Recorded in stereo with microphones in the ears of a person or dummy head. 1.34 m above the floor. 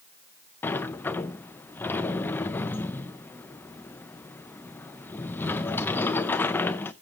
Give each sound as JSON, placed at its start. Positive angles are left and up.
{"t": 0.6, "sound": "a sliding door", "side_deg": 10, "distance_m": 0.5}